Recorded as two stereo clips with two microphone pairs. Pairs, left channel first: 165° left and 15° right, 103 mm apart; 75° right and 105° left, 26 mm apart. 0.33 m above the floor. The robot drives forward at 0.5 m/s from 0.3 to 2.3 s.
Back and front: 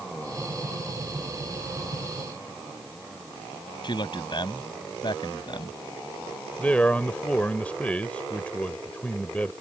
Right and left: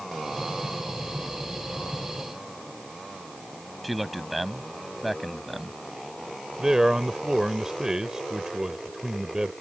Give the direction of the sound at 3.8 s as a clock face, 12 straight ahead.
6 o'clock.